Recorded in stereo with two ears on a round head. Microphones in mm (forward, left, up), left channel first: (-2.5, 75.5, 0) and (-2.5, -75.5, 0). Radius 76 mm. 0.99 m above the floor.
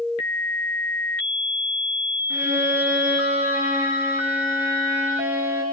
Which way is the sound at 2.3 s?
15° right (ahead or behind).